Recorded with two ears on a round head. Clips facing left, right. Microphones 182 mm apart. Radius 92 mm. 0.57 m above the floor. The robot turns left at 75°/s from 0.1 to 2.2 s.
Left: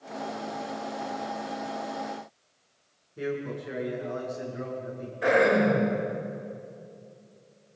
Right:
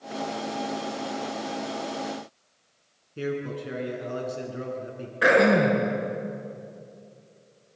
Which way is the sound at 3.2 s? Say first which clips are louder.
Right 2 dB; 35° right (ahead or behind).